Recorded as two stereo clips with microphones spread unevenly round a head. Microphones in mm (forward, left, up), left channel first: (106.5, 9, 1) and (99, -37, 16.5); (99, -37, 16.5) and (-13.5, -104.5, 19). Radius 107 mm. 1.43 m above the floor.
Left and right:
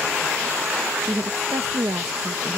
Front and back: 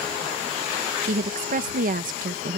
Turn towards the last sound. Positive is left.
turn(degrees=-140)